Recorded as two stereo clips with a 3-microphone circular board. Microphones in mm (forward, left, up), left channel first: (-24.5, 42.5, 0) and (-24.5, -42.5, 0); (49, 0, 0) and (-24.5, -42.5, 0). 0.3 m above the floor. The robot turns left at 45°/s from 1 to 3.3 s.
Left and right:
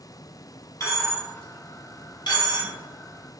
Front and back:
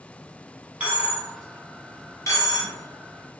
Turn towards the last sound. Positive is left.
turn(degrees=35)